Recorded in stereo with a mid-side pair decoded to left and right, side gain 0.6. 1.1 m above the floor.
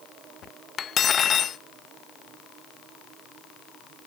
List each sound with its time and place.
0.8 s cutlery clinking: 40° left, 0.5 m